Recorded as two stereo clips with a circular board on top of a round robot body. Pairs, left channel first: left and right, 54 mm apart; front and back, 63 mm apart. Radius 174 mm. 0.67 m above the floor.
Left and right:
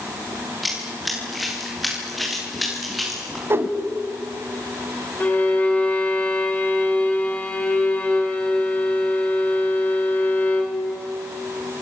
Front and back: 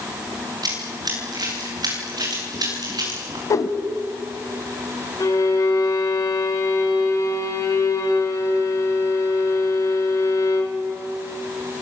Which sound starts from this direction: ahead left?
A violin, at 5.2 s.